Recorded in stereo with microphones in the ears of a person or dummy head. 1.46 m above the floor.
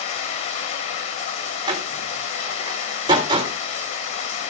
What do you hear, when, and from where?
0.0 s running water: 35° left (ahead or behind), 1.6 m
1.7 s a door slam: 20° right (ahead or behind), 3.5 m